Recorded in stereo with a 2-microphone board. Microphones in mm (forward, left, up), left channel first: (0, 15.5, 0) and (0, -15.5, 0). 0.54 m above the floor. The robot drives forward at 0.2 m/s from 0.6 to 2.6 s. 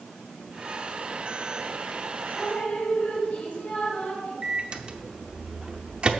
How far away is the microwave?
About 0.7 m.